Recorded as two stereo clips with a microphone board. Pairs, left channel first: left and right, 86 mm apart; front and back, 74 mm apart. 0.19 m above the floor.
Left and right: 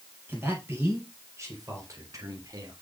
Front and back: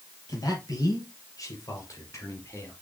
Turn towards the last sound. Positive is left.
turn(degrees=-50)